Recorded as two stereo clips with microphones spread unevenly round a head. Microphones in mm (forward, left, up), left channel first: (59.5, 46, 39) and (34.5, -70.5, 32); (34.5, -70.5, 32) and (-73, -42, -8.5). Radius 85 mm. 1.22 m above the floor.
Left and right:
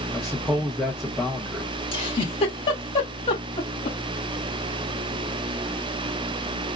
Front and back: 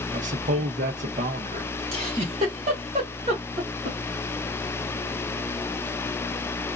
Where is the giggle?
130° left, 2.0 m.